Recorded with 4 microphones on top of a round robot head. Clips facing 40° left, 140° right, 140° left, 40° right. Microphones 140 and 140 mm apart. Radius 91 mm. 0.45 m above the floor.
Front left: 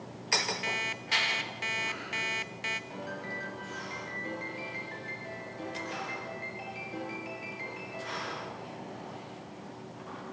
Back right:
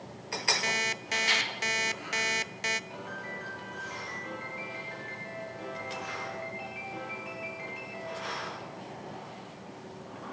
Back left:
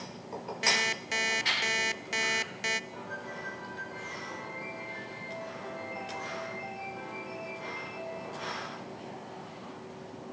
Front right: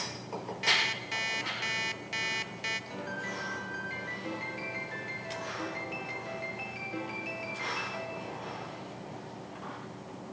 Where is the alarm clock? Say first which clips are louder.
Back right 3 dB, back left 2 dB; 175° left, 0.7 m.